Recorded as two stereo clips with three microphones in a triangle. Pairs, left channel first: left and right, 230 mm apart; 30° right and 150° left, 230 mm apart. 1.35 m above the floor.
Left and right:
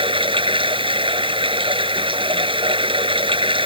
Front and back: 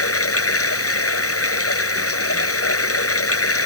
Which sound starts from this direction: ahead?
Running water, at 0.0 s.